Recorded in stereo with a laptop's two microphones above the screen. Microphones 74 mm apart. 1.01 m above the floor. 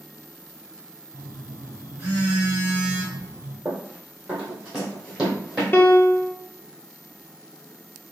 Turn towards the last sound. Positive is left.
turn(degrees=30)  # may be behind; listen again after turning